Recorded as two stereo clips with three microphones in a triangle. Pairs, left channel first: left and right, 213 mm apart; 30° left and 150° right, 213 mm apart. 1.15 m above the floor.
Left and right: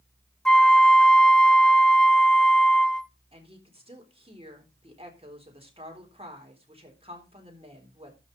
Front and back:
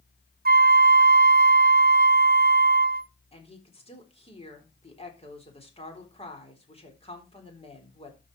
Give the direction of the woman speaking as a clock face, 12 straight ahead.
1 o'clock.